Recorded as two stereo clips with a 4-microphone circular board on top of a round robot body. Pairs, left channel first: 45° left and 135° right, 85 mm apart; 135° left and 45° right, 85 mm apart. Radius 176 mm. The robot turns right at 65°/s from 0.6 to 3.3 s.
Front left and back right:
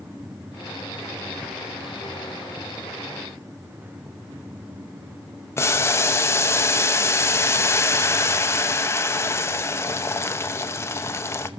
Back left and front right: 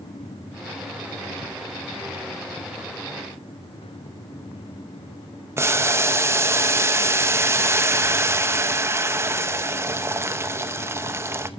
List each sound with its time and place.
5.6 s boiling: straight ahead, 0.8 m